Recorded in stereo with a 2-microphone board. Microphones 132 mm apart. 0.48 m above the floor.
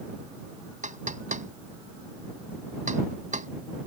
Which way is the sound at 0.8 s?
75° right (ahead or behind).